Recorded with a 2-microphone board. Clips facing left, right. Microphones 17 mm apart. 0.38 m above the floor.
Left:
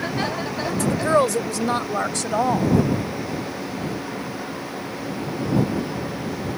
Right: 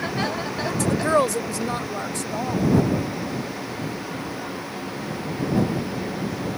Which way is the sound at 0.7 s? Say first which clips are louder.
Left 1 dB; 20° right (ahead or behind).